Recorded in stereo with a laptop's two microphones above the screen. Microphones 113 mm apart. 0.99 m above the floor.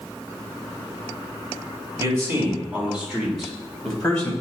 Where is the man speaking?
30° right (ahead or behind), 2.5 m; by 4.3 s 10° left (ahead or behind), 3.5 m.